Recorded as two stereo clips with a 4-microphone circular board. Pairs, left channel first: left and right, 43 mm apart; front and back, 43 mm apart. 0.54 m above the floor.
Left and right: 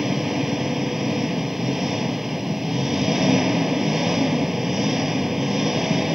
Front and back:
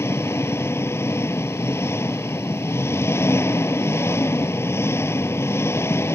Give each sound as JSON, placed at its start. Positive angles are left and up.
{"t": 0.0, "sound": "an engine running", "azimuth_deg": -5}